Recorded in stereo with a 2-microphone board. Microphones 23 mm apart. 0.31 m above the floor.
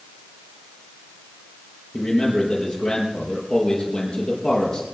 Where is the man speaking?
45° left (ahead or behind), 4.5 m.